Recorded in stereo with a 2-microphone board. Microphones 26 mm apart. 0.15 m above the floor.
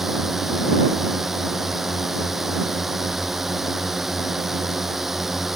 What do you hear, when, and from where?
0.0 s a drone: 10° right (ahead or behind)